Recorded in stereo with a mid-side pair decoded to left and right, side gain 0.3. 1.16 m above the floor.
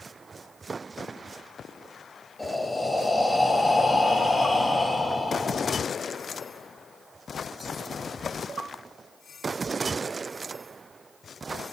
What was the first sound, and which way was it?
Breathing, 15° left.